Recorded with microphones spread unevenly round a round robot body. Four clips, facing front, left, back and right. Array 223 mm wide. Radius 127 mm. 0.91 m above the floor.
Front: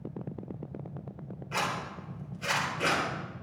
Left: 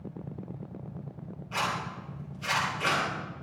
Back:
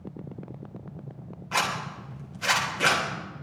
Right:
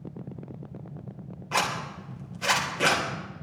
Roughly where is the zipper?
Right.